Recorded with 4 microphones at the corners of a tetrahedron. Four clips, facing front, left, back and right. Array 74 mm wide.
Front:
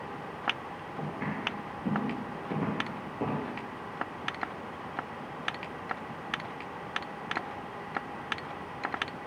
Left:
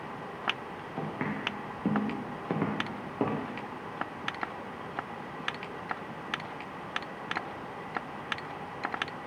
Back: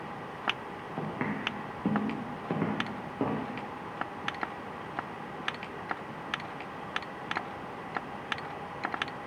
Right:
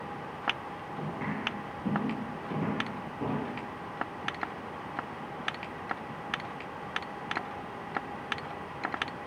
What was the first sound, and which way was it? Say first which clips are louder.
Footsteps: left 2 dB, back 2 dB; 140° left.